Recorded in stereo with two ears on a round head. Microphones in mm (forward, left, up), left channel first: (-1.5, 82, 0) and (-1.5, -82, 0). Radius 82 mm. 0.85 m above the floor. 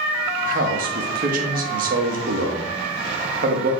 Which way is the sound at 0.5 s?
50° right (ahead or behind).